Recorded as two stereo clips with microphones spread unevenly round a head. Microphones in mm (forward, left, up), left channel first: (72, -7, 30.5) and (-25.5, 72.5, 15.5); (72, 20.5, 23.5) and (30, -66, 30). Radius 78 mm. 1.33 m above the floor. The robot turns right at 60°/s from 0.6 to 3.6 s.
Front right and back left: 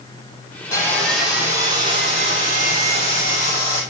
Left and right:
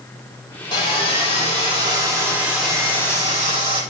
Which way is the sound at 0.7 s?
25° left.